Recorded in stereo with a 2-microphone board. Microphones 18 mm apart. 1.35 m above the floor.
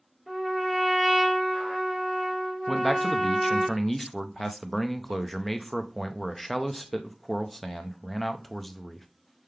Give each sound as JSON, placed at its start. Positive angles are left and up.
{"t": 0.3, "sound": "a trumpet", "side_deg": -5, "distance_m": 1.6}
{"t": 2.7, "sound": "a man speaking", "side_deg": 0, "distance_m": 0.5}